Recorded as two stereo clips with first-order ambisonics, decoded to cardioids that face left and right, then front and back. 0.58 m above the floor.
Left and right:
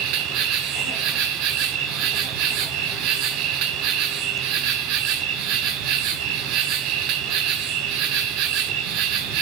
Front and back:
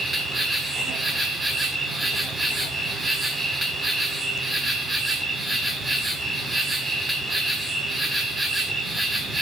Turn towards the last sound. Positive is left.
turn(degrees=-100)